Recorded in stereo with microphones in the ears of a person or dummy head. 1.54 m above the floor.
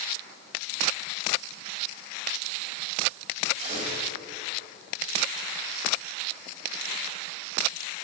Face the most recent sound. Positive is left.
turn(degrees=-40)  # may be behind; listen again after turning